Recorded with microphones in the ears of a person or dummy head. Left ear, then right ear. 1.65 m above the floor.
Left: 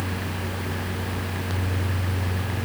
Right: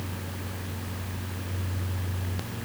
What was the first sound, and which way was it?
Only background noise.